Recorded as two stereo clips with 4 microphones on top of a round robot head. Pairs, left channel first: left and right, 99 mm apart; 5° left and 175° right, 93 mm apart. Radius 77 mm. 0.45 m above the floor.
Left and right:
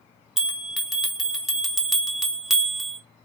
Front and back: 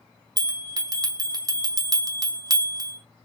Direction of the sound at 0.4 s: 175° right.